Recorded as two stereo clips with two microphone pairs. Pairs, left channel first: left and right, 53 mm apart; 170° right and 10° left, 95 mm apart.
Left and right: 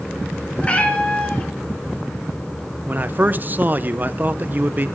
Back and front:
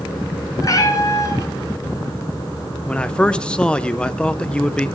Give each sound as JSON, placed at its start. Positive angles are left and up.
{"t": 0.6, "sound": "a cat meowing", "azimuth_deg": 150, "distance_m": 1.6}
{"t": 2.9, "sound": "a man speaking", "azimuth_deg": -95, "distance_m": 0.6}